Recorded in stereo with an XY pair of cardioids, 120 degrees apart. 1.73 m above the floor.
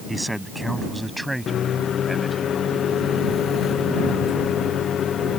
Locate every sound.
0.1 s a man speaking: straight ahead; by 2.5 s 5° right
1.5 s a microwave: 50° left